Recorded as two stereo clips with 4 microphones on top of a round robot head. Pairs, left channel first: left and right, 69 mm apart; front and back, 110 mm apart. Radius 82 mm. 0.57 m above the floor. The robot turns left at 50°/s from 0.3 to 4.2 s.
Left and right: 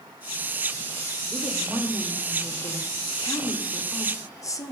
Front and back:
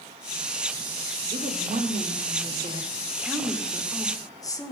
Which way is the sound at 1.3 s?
160° right.